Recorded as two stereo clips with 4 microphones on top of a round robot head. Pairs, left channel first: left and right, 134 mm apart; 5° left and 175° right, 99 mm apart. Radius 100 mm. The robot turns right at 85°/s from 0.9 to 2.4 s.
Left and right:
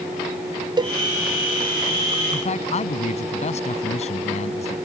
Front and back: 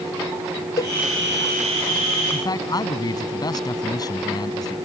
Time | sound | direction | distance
0.8 | a cowbell | 40° right | ?
2.3 | a man speaking | 50° left | ?